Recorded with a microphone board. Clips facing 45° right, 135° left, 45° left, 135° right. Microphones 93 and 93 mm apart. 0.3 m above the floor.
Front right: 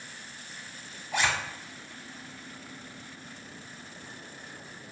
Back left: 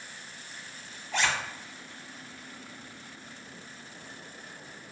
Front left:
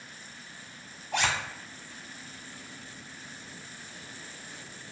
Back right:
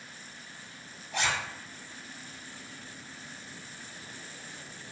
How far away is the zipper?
About 0.7 m.